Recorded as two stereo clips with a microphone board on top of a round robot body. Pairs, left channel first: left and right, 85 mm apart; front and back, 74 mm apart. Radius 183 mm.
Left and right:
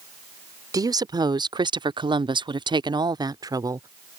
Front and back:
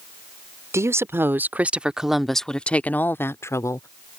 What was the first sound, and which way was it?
A woman speaking, 130° right.